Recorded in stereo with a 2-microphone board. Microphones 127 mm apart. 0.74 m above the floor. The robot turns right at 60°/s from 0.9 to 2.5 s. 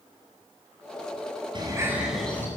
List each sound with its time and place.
1.6 s a bird: 40° right, 8 m; by 2.5 s 15° left, 8 m